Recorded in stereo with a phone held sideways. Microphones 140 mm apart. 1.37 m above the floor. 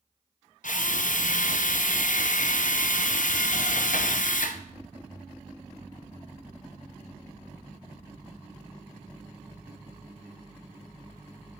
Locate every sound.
0.6 s a drill: 70° left (ahead or behind), 0.6 m